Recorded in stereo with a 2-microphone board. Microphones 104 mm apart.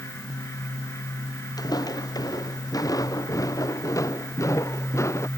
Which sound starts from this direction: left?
Footsteps, at 1.6 s.